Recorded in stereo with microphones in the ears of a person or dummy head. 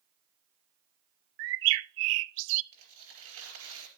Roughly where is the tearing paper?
Right.